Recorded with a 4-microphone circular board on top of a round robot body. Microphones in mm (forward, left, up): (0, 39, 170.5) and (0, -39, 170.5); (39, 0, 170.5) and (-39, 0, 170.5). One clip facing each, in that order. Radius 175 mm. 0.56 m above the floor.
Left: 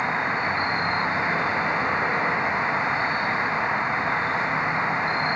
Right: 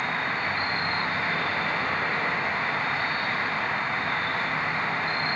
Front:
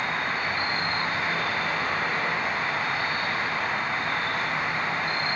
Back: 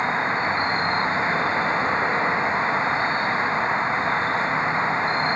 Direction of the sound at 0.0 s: 145° left.